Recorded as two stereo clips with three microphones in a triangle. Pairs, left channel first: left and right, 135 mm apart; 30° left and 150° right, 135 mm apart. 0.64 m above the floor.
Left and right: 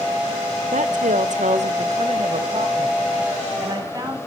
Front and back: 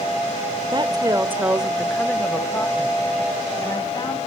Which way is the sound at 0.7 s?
100° right.